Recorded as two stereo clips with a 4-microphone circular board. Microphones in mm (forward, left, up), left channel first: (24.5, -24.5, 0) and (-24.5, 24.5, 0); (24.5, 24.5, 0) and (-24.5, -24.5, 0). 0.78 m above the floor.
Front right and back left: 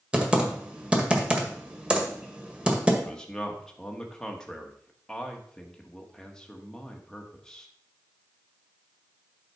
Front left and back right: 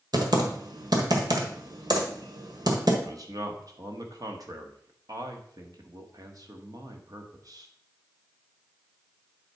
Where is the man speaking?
125° right, 1.4 m.